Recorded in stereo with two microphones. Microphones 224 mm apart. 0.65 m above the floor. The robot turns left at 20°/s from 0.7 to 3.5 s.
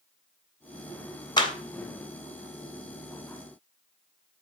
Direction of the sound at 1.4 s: 20° left (ahead or behind).